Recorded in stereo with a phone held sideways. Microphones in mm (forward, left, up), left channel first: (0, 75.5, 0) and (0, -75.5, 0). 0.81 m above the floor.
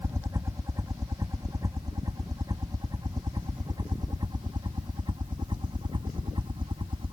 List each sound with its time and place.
0.0 s a helicopter: 20° right (ahead or behind); by 7.1 s 30° right (ahead or behind)